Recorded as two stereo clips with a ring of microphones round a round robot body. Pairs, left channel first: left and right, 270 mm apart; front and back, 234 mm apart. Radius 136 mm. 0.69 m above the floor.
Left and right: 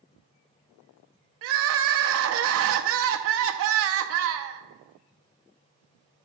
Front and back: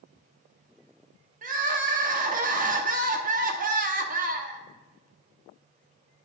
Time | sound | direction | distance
1.4 | crying | 125° right | 0.6 m